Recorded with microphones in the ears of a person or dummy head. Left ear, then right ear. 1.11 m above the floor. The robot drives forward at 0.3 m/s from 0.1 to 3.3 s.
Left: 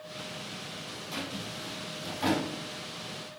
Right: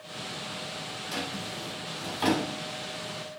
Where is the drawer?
35° right (ahead or behind), 2.5 m; by 2.5 s 40° right (ahead or behind), 2 m.